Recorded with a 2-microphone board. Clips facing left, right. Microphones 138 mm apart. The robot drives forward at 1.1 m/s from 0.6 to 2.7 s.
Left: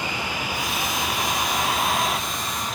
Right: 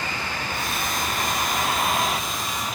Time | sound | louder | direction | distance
0.0 | a vehicle | left 1 dB | 15° left (ahead or behind) | ?